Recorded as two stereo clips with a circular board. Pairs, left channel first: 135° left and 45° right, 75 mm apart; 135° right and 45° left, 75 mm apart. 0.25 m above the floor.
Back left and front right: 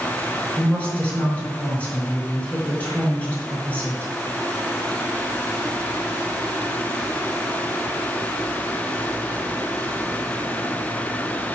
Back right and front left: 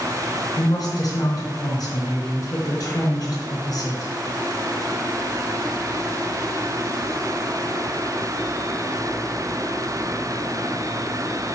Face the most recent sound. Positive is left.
turn(degrees=-160)